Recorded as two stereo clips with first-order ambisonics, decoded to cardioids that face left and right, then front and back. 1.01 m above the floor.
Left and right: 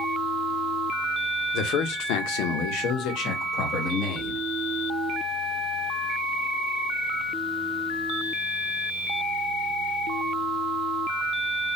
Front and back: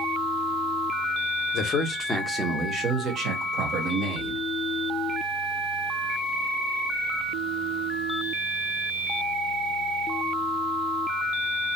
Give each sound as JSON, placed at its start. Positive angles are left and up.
{"t": 1.5, "sound": "a man speaking", "azimuth_deg": 50, "distance_m": 0.8}